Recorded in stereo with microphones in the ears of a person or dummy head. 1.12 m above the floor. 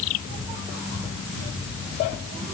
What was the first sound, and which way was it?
Only background noise.